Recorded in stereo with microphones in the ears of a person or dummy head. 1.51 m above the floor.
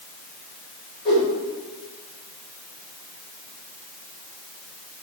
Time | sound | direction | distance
1.1 | a whoosh | 35° left (ahead or behind) | 1.5 m